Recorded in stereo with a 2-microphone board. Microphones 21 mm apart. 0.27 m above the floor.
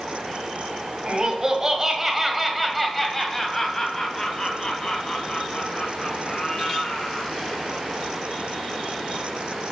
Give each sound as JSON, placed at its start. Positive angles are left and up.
{"t": 1.1, "sound": "laughter", "side_deg": -35, "distance_m": 1.6}